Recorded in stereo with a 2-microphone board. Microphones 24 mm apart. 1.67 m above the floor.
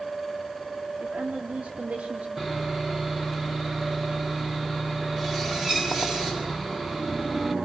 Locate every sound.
1.0 s a woman speaking: 75° right (ahead or behind), 3.5 m
2.4 s sawing: 10° right (ahead or behind), 8 m